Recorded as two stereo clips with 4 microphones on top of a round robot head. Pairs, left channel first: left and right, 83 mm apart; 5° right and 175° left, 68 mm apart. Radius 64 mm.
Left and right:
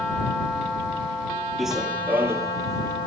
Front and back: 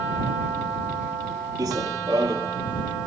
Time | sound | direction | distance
1.6 | running footsteps | straight behind | ?